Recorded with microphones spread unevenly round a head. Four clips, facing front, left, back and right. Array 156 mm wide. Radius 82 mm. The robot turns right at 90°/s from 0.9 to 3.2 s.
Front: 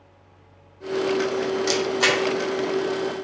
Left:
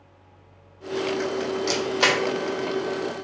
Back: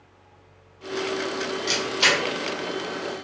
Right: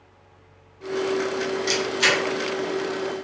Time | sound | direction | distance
1.7 | a camera shutter | 35° left | 0.5 m